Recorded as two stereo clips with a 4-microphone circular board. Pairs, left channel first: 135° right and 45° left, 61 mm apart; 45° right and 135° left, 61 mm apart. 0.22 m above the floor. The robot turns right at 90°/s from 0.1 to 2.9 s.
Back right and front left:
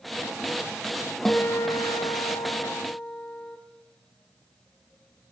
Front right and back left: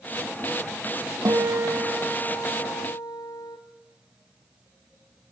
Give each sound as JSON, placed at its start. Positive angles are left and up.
{"t": 1.2, "sound": "a guitar", "azimuth_deg": 140, "distance_m": 3.5}